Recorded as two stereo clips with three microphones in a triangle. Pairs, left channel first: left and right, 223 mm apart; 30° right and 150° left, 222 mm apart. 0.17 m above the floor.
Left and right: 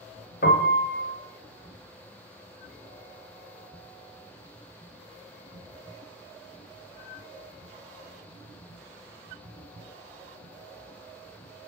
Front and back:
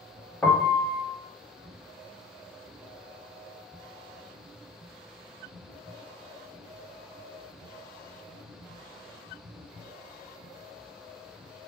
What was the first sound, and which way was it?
A piano, 45° left.